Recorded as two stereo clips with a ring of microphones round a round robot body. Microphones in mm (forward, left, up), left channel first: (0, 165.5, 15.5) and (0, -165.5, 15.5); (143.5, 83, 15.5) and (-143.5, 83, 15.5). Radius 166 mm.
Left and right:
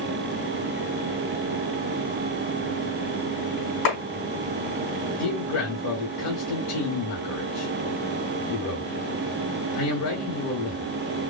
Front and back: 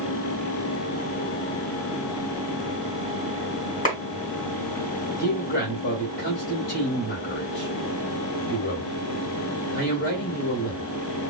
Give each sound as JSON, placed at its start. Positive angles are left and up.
{"t": 3.9, "sound": "a clap", "azimuth_deg": 65, "distance_m": 3.5}
{"t": 5.2, "sound": "a man speaking", "azimuth_deg": 55, "distance_m": 2.5}